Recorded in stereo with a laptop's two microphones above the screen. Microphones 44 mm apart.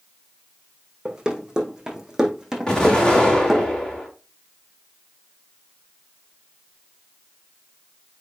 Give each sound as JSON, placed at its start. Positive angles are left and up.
{"t": 1.1, "sound": "running footsteps", "side_deg": -15, "distance_m": 4.0}
{"t": 2.7, "sound": "an explosion", "side_deg": 15, "distance_m": 3.0}